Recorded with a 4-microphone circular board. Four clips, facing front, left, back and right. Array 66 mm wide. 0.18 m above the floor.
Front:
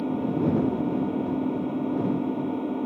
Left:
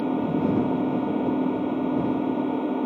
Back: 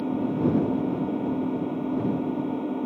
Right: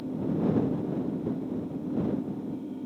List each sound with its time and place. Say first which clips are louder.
0.0 s an engine running: left 5 dB, even; 90° left